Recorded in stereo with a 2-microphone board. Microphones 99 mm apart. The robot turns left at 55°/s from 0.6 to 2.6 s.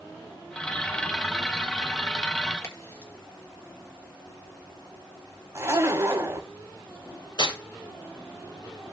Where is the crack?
30° left (ahead or behind), 1.8 m.